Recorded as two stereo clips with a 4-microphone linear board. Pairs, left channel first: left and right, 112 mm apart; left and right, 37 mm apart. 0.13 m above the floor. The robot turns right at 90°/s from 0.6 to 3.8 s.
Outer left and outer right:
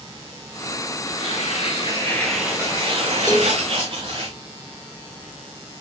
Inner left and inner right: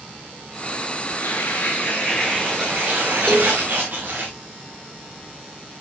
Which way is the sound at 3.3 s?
25° left (ahead or behind).